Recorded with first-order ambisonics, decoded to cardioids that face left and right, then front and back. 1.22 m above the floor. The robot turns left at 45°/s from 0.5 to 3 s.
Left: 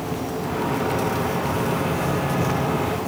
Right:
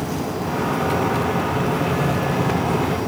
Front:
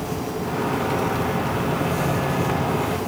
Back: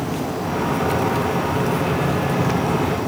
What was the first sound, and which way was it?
Only background noise.